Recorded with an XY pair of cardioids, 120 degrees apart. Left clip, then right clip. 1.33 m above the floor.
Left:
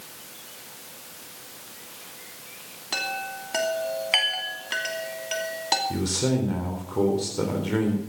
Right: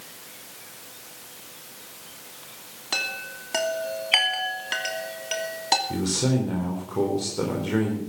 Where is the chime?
15° right, 2.5 m.